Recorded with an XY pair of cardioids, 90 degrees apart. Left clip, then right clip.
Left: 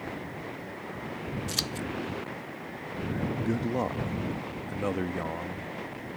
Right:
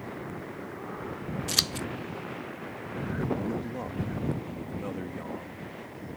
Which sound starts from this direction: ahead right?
Scissors, at 1.5 s.